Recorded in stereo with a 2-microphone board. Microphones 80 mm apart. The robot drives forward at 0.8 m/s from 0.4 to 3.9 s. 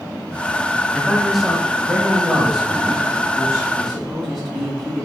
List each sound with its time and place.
0.9 s a man speaking: centre (ahead or behind), 0.8 m